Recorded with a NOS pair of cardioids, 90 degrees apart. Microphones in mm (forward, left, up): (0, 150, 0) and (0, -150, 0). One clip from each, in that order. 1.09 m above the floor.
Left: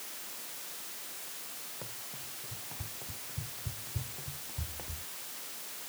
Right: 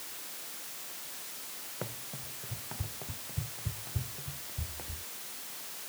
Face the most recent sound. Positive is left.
turn(degrees=5)